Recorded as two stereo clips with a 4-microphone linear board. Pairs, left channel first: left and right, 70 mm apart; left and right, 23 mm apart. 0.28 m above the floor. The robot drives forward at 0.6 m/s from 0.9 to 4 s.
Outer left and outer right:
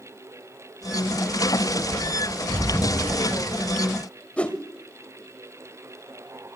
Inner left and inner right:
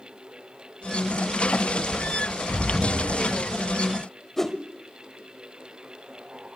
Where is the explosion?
60° left (ahead or behind), 1.0 m; by 3.8 s 40° left (ahead or behind), 1.3 m.